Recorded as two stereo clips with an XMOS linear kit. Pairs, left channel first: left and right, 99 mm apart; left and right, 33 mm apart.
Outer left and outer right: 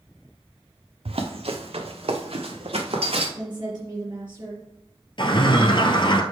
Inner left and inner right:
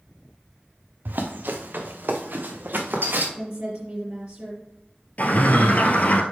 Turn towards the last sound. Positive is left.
turn(degrees=55)  # may be behind; listen again after turning